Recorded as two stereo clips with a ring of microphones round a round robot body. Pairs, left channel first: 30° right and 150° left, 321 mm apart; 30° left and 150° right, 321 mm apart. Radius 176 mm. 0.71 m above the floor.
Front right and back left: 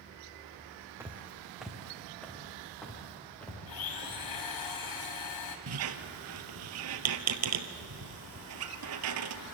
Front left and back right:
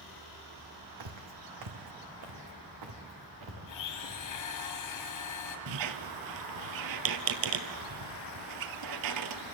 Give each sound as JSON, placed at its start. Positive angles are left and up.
{"t": 1.0, "sound": "footsteps", "azimuth_deg": -125, "distance_m": 1.7}
{"t": 3.6, "sound": "a blender", "azimuth_deg": -5, "distance_m": 2.0}
{"t": 5.7, "sound": "a squeak", "azimuth_deg": -170, "distance_m": 1.3}